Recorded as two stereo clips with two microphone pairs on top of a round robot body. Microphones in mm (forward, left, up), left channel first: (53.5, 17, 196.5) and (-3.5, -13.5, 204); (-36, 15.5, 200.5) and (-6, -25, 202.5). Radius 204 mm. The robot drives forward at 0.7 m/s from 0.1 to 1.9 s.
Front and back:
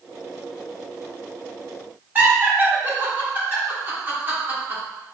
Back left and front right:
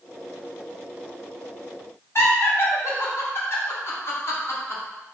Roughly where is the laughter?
Behind left.